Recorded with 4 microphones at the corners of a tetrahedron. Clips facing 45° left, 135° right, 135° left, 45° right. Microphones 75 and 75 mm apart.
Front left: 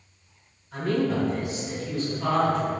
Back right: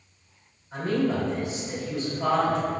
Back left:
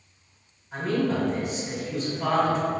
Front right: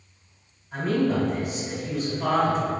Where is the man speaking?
135° right, 1.9 m.